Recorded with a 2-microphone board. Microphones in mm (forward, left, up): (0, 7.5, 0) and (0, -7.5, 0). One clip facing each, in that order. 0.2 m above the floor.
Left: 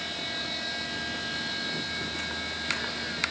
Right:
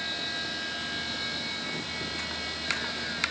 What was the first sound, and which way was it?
Only background noise.